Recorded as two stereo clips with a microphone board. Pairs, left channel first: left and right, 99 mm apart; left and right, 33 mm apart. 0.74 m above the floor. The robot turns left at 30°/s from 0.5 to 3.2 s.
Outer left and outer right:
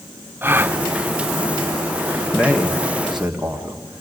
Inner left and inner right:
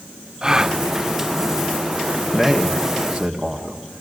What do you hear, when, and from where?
0.4 s a gasp: 20° right (ahead or behind), 0.6 m
2.3 s a man speaking: 15° left (ahead or behind), 1.5 m; by 4.0 s 10° right (ahead or behind), 1.5 m